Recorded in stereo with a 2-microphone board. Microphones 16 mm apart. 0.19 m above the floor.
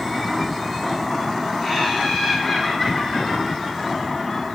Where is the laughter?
20° right (ahead or behind), 7 m; by 4.5 s 10° right (ahead or behind), 10 m.